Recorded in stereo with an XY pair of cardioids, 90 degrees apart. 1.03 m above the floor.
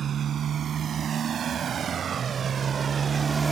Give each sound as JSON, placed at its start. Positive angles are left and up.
{"t": 0.0, "sound": "a motorcycle", "azimuth_deg": -60}